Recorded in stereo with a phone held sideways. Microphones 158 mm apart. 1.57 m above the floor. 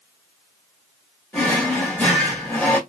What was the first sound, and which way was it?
A drawer, 10° left (ahead or behind).